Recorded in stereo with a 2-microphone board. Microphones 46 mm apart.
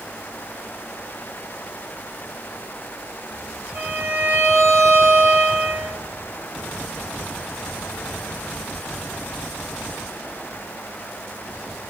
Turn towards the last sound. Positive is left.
turn(degrees=-55)  # may be behind; listen again after turning